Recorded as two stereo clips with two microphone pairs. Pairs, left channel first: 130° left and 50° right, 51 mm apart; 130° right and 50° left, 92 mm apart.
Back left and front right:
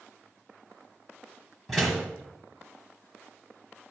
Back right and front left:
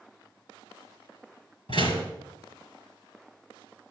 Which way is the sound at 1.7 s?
145° right.